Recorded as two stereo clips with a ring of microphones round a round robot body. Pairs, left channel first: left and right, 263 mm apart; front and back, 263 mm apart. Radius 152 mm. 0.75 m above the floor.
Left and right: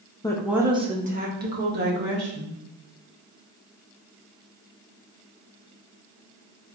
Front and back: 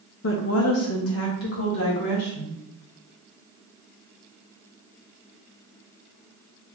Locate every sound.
0.2 s a woman speaking: 20° left, 0.7 m; by 2.6 s 45° right, 2.5 m